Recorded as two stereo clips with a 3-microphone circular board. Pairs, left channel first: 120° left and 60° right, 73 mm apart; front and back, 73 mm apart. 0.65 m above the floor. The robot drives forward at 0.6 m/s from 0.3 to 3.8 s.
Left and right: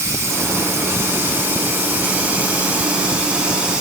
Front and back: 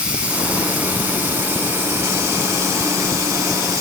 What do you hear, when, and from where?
0.0 s running water: 105° right, 3 m; by 3.8 s 135° right, 4 m